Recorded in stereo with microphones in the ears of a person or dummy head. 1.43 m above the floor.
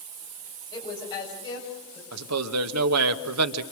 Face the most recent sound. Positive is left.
turn(degrees=-85)